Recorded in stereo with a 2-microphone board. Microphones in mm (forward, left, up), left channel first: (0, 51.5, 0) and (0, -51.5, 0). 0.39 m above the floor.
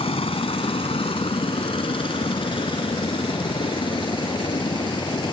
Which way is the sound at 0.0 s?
65° left (ahead or behind).